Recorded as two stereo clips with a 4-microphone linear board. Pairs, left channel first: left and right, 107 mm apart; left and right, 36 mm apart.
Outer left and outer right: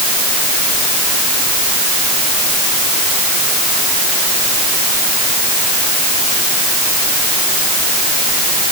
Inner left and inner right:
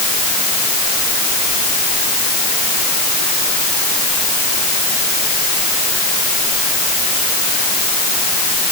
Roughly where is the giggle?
I don't hear a giggle.